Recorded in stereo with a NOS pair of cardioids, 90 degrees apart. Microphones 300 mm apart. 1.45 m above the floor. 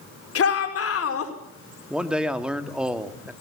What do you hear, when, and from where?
0.3 s a shout: 45° left, 5.5 m
1.9 s a man speaking: 5° right, 2.5 m